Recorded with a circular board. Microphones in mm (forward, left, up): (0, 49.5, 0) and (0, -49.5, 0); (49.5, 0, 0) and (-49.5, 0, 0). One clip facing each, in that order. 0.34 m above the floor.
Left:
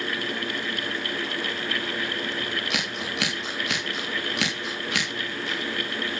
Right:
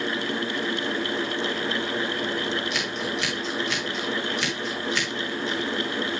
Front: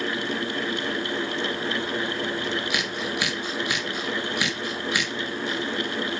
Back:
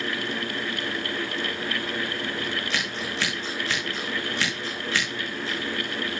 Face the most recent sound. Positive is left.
turn(degrees=80)